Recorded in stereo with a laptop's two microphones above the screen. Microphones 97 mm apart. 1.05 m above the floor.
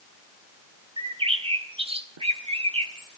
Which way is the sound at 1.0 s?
80° right.